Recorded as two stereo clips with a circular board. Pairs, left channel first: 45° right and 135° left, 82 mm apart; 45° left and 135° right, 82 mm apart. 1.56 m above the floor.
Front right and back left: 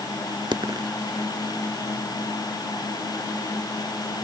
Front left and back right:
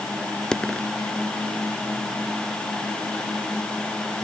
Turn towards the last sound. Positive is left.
turn(degrees=125)